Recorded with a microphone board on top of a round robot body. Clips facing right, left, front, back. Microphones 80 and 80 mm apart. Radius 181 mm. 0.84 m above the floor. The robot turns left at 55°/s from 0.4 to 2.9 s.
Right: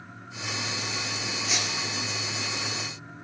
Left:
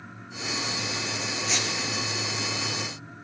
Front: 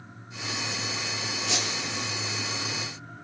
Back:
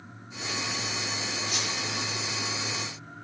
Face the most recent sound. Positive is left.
turn(degrees=-80)